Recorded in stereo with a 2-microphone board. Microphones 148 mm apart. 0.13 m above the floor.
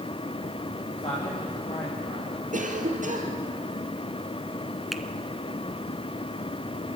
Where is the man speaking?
40° left (ahead or behind), 5 m.